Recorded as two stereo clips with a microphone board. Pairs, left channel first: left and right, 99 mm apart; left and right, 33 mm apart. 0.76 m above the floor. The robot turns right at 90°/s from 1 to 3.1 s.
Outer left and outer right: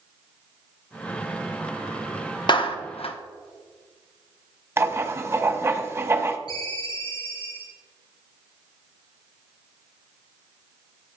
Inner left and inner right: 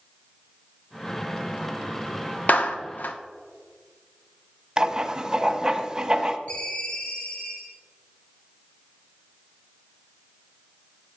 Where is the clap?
50° left (ahead or behind), 1.0 m; by 3.2 s 65° left (ahead or behind), 1.0 m.